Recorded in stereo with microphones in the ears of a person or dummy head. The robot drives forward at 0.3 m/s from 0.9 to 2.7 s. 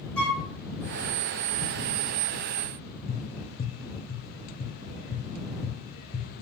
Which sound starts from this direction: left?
Tapping, at 3.1 s.